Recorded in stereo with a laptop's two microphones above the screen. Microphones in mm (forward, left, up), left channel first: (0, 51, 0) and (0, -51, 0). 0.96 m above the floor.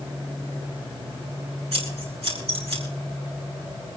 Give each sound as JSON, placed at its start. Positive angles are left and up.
{"t": 1.7, "sound": "scissors", "side_deg": -75, "distance_m": 4.0}